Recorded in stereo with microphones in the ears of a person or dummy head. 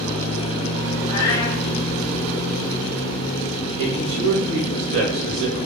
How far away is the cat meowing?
About 1.2 m.